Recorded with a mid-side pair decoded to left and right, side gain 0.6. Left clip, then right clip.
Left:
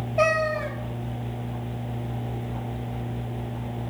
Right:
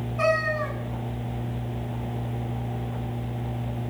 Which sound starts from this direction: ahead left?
A cat meowing, at 0.2 s.